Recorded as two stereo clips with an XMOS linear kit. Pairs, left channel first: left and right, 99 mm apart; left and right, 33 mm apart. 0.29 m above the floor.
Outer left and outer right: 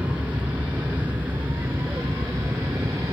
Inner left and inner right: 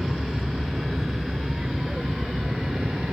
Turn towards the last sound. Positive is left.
turn(degrees=-25)  # may be behind; listen again after turning